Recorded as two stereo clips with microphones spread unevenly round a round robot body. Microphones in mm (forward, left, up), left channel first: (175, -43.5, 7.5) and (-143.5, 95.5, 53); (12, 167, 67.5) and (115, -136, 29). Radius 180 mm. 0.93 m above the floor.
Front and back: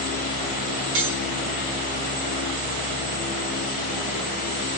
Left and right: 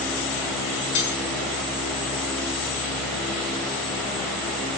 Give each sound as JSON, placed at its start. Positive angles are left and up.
{"t": 0.9, "sound": "cutlery clinking", "azimuth_deg": 130, "distance_m": 5.5}